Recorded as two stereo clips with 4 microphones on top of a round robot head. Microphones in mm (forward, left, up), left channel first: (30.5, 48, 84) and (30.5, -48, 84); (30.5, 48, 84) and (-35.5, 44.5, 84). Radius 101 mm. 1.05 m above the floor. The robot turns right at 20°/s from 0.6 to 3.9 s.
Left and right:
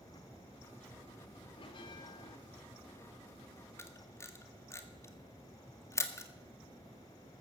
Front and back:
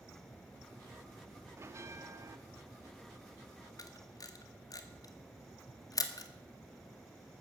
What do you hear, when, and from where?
1.6 s a bell: 130° left, 1.4 m; by 2.4 s 145° left, 1.4 m
3.8 s a camera shutter: 25° left, 1.9 m; by 6.3 s 30° left, 1.9 m